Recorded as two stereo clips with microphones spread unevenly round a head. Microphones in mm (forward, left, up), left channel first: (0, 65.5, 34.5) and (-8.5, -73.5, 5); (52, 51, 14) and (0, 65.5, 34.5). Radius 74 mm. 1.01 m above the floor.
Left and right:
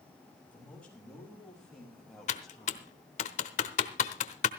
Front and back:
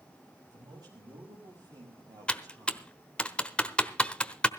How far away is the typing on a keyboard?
About 1.1 m.